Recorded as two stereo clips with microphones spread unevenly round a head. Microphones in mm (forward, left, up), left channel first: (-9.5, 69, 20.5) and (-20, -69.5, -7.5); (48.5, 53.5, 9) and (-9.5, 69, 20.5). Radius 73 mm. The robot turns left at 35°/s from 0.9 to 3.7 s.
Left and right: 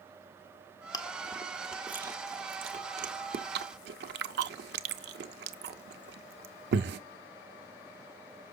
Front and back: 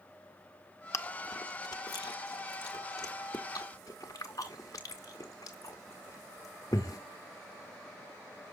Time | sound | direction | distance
0.9 | chewing | 20° left | 0.7 m